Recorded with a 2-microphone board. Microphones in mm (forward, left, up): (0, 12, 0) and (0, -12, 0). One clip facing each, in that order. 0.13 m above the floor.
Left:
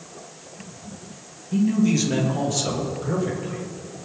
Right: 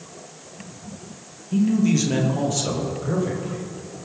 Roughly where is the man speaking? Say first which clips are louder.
Right 1 dB; centre.